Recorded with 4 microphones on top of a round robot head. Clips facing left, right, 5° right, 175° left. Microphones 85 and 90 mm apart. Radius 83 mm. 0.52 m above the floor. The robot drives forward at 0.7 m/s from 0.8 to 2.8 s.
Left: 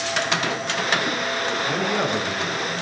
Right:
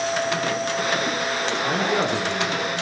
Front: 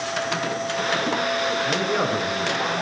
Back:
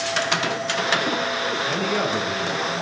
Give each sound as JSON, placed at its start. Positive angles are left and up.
{"t": 1.6, "sound": "a man speaking", "azimuth_deg": -55, "distance_m": 8.0}